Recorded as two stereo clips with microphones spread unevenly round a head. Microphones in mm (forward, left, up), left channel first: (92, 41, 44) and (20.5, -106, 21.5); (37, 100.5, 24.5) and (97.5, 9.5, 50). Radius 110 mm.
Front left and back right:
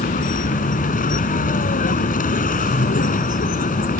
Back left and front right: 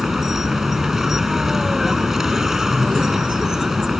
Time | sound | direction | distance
0.0 | a vehicle | 30° left | ?